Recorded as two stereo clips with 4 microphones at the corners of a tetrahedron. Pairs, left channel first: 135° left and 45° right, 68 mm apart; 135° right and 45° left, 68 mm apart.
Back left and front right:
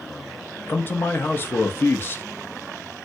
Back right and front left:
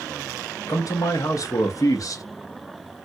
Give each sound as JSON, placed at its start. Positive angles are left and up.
{"t": 0.7, "sound": "a man speaking", "azimuth_deg": -170, "distance_m": 0.8}